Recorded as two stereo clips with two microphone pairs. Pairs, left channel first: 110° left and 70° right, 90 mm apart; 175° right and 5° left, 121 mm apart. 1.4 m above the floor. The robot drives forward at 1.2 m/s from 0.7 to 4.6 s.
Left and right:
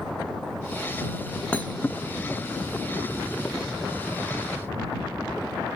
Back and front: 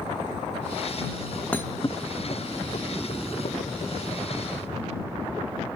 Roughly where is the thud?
Behind left.